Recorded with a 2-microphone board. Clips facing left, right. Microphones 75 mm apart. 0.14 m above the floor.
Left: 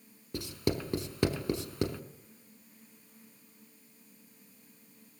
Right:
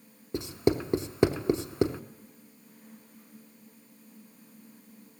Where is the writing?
25° right (ahead or behind), 0.6 m.